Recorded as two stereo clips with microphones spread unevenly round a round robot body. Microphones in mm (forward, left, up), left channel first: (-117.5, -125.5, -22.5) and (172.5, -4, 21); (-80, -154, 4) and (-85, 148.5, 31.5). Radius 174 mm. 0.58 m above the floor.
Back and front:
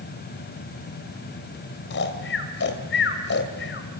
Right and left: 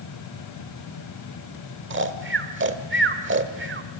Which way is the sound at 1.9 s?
145° left.